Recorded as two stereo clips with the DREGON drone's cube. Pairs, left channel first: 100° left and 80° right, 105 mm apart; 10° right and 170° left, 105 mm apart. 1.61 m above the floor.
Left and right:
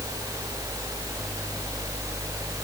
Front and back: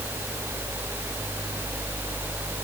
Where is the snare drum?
No snare drum in this recording.